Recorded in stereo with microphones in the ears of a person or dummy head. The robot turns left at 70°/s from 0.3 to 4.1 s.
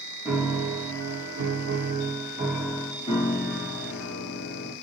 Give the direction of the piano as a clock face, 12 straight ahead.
12 o'clock.